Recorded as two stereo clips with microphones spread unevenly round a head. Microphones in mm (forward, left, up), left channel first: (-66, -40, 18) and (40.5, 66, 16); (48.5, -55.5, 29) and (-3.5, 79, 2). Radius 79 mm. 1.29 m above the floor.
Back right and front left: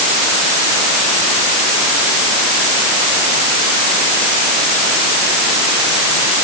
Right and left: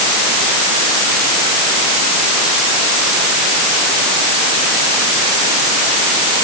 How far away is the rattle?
No rattle in this recording.